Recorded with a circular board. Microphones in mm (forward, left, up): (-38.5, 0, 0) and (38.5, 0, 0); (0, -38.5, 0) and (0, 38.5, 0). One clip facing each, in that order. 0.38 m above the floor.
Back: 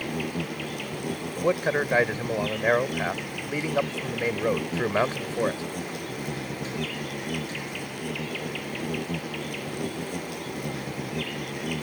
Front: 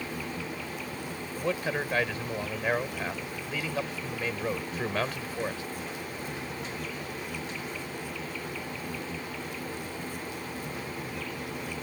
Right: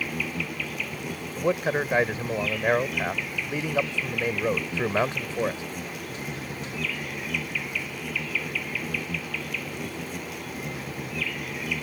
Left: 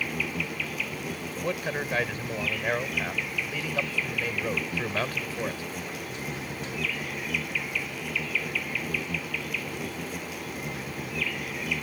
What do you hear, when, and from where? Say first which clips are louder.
0.0 s an insect: back 5 dB, right 1 dB; straight behind
1.4 s a man speaking: back 6 dB, right 7 dB; 140° right